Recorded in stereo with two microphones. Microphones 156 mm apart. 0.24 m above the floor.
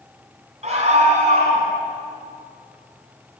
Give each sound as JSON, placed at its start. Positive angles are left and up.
{"t": 0.6, "sound": "a scream", "side_deg": -45, "distance_m": 2.0}